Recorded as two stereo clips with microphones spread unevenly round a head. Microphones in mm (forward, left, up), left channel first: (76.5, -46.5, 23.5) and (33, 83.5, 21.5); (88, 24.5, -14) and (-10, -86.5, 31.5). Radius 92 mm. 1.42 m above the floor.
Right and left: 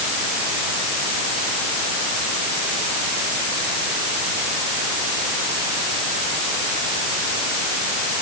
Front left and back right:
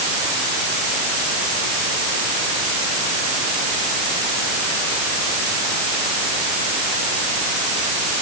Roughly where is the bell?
I don't hear a bell.